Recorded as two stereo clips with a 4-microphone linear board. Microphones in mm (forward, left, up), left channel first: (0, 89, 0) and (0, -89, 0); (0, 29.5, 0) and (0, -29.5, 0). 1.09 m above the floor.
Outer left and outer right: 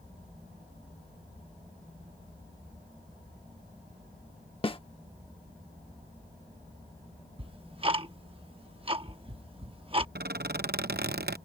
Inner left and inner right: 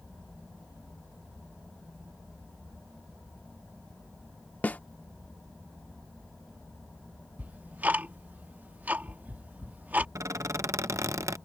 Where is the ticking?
30° right (ahead or behind).